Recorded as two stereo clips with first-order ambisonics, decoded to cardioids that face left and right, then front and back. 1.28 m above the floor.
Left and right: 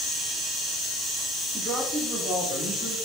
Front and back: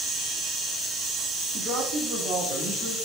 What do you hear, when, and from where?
1.5 s a man speaking: straight behind, 3 m; by 3.0 s 160° right, 3 m